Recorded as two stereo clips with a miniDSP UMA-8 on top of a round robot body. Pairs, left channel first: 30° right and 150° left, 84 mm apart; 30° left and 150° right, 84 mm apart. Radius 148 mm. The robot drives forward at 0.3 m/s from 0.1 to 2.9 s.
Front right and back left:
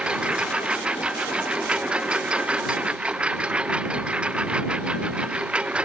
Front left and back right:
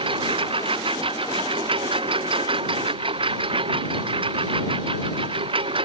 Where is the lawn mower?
130° right; by 5.9 s 135° right.